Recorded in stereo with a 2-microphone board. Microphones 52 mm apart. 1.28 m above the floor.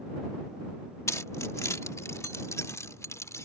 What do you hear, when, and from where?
1.1 s keys jangling: 80° left; by 3.5 s 75° left (ahead or behind)